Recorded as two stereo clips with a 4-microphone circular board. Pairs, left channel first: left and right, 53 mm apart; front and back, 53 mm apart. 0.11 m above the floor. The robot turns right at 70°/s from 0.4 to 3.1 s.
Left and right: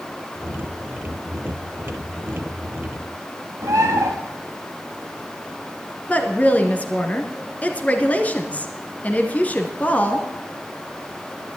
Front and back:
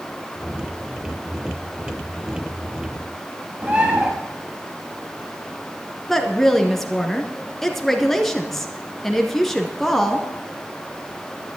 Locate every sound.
3.6 s a bird: 115° right, 3.5 m
6.1 s a woman speaking: 80° left, 1.7 m